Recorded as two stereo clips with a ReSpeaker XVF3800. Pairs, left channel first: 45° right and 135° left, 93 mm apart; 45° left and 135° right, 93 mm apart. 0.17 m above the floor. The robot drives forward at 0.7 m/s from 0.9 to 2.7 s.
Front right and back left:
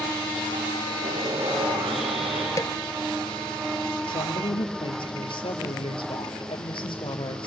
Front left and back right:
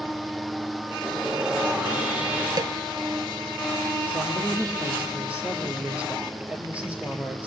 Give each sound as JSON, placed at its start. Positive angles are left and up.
{"t": 1.0, "sound": "sawing", "azimuth_deg": 140, "distance_m": 3.0}
{"t": 2.6, "sound": "a snare drum", "azimuth_deg": -95, "distance_m": 0.5}
{"t": 4.1, "sound": "a woman speaking", "azimuth_deg": -60, "distance_m": 3.5}